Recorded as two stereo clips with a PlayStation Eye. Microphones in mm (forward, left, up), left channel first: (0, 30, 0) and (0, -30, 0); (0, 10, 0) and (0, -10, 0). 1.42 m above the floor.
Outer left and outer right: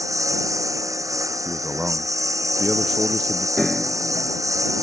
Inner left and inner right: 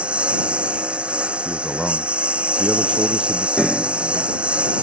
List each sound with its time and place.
0.0 s a lawn mower: 65° right (ahead or behind)
1.4 s a man speaking: 5° right (ahead or behind)
3.6 s a piano: 5° right (ahead or behind)